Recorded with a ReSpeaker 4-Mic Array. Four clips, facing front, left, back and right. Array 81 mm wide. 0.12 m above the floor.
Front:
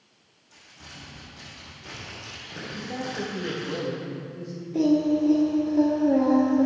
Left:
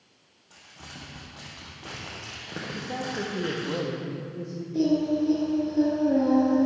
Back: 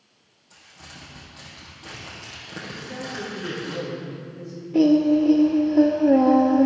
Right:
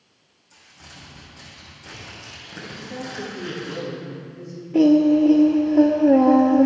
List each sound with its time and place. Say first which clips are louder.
0.5 s crumpling: left 1 dB, back 1 dB; 105° left, 3.5 m
2.8 s a man speaking: left 1 dB, front 3 dB; 75° left, 3.5 m
4.7 s singing: right 9 dB, back 5 dB; 115° right, 0.7 m